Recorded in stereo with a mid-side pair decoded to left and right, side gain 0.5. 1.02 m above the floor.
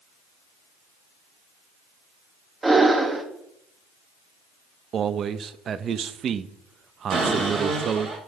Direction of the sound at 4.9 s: 50° right.